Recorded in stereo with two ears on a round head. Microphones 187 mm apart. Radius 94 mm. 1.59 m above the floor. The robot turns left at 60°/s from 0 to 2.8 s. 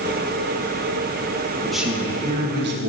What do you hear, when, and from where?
1.6 s a man speaking: 5° left, 1.8 m; by 2.9 s 65° right, 1.8 m